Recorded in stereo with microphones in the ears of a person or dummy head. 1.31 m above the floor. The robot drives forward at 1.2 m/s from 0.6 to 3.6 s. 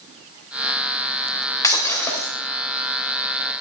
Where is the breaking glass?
15° left (ahead or behind), 1.6 m; by 2.3 s 10° left (ahead or behind), 2.5 m.